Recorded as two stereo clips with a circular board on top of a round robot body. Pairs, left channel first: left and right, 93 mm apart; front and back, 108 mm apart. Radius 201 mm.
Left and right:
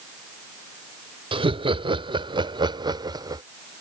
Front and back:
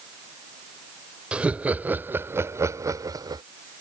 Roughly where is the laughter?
Right.